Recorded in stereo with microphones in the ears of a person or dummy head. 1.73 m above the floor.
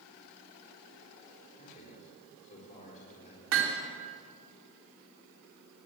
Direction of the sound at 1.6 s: 40° left (ahead or behind).